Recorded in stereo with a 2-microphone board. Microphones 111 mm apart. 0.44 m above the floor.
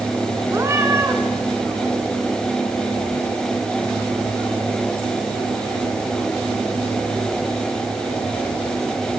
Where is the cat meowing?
25° right (ahead or behind), 3 m.